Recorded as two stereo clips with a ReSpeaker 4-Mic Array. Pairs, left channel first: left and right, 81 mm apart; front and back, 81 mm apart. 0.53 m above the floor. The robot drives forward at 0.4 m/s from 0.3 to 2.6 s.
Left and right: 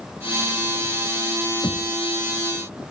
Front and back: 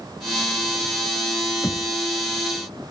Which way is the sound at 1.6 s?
65° left.